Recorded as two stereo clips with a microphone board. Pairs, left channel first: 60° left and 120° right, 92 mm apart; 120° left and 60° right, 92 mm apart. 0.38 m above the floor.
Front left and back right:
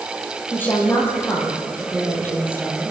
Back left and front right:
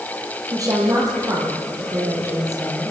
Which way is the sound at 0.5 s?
10° right.